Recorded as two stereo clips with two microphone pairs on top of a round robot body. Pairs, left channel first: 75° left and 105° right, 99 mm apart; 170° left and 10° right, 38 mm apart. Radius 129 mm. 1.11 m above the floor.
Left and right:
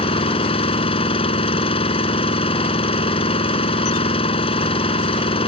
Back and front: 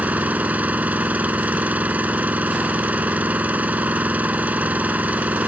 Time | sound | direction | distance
0.0 | an engine running | 40° left | ?